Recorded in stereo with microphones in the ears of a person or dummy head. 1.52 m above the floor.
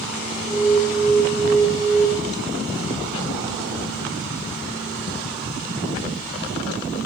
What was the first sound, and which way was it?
An alarm, 30° right (ahead or behind).